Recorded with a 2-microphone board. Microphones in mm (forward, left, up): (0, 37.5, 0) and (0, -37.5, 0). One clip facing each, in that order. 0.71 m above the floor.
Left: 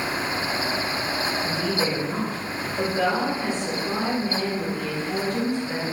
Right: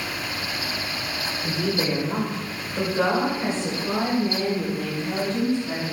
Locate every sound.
1.4 s a woman speaking: 60° right (ahead or behind), 2.5 m; by 5.9 s 40° right (ahead or behind), 4 m